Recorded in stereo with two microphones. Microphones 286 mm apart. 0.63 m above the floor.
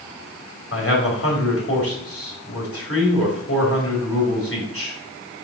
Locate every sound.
0.7 s a man speaking: 50° left (ahead or behind), 2.5 m